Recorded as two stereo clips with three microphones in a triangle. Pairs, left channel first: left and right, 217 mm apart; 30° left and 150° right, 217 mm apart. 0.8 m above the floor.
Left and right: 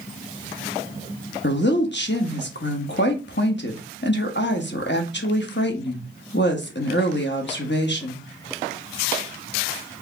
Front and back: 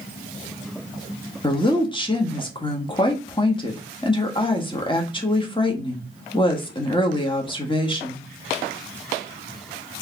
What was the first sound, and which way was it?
A woman speaking, 90° left.